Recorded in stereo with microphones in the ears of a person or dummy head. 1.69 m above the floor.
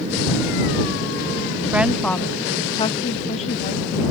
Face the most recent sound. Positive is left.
turn(degrees=40)  # may be behind; listen again after turning